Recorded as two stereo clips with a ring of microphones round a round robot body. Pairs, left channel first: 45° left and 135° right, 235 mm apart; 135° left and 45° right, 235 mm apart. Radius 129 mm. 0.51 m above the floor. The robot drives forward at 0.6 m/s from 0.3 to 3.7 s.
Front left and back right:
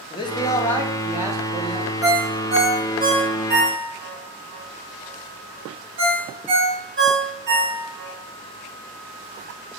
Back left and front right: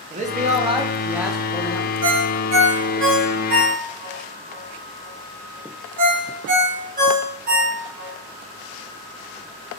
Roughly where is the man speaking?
Ahead.